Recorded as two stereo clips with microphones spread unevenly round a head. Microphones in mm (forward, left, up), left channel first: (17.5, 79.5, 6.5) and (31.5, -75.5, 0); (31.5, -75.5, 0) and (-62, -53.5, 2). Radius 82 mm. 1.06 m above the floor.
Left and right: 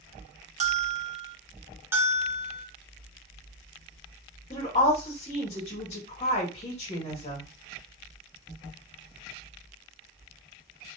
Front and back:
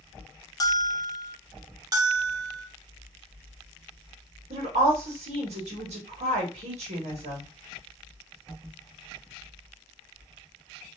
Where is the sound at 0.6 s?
55° right, 0.5 m.